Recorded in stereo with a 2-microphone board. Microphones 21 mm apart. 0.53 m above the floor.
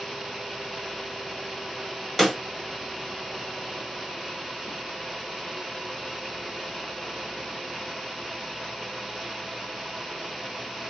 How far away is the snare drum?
About 1.0 m.